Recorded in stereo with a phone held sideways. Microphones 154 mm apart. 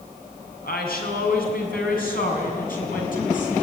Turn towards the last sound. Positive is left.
turn(degrees=60)  # may be behind; listen again after turning